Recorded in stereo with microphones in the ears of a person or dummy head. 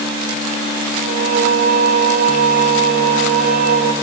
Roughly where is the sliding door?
No sliding door in this recording.